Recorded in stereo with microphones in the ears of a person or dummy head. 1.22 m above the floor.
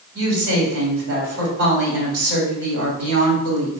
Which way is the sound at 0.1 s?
70° right (ahead or behind).